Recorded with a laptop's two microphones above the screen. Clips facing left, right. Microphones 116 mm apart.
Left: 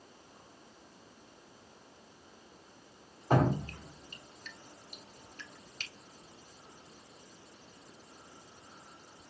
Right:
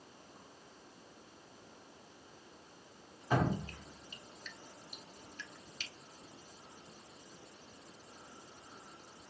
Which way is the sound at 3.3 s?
50° left (ahead or behind).